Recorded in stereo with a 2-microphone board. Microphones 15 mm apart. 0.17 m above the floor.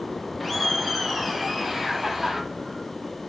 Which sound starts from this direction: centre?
Laughter, at 0.4 s.